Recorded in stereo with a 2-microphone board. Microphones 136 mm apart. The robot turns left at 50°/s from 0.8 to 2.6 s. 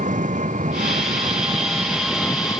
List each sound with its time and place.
0.0 s an engine running: 115° right; by 2.6 s 155° left